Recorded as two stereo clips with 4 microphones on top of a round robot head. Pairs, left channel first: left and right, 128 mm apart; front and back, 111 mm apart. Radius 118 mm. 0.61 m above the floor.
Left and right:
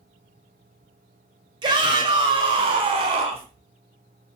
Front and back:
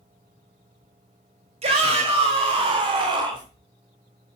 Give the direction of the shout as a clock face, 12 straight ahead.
5 o'clock.